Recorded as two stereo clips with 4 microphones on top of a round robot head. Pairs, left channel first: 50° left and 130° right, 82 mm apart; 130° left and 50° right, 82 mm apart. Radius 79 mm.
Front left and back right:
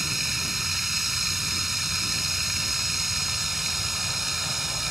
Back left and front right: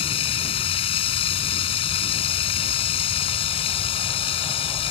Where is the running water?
140° left.